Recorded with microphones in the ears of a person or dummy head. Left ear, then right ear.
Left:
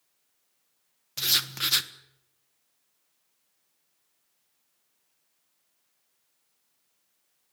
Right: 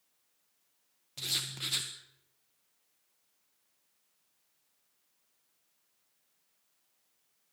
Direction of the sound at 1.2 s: 65° left (ahead or behind).